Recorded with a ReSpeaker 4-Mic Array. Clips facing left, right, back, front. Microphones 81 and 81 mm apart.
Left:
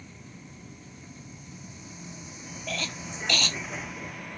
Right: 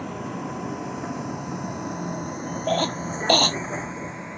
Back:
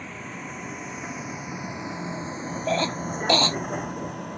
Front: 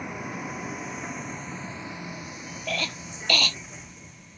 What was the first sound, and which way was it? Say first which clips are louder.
A vehicle: right 17 dB, front 3 dB; 75° right.